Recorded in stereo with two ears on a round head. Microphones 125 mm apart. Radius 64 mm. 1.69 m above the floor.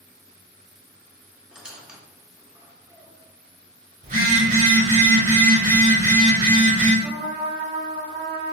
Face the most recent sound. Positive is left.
turn(degrees=-40)  # may be behind; listen again after turning